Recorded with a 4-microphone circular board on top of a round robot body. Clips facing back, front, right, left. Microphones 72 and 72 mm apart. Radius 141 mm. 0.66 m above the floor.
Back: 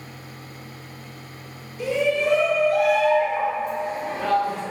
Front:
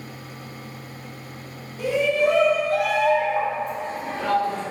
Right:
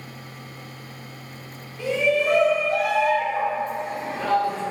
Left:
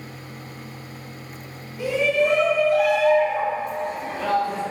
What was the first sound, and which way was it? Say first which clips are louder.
A shout: front 1 dB, left 1 dB; 20° left.